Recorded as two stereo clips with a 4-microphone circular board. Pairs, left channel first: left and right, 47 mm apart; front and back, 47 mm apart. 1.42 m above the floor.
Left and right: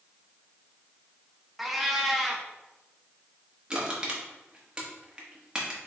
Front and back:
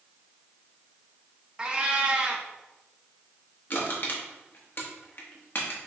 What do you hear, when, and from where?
1.6 s a cat meowing: 165° right, 0.6 m
3.7 s crushing: 25° right, 1.1 m